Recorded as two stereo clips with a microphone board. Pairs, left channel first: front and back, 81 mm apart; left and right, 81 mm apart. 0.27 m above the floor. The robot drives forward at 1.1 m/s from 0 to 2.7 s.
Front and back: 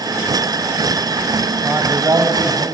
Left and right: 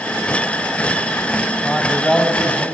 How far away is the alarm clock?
I don't hear an alarm clock.